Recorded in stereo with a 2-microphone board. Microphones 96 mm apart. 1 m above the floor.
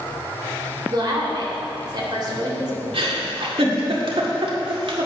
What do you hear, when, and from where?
0.9 s a woman speaking: 50° right (ahead or behind), 3 m
2.9 s a giggle: 75° right (ahead or behind), 1.8 m